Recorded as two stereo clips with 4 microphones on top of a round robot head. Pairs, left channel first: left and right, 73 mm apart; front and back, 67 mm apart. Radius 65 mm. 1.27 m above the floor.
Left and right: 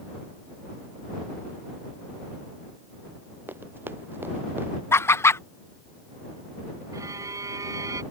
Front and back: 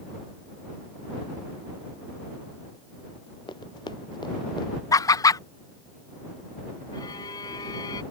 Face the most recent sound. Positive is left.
turn(degrees=-45)